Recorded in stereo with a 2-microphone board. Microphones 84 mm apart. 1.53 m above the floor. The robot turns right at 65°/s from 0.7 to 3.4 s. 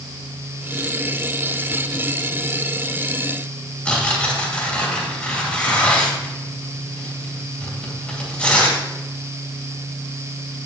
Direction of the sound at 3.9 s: 15° left (ahead or behind).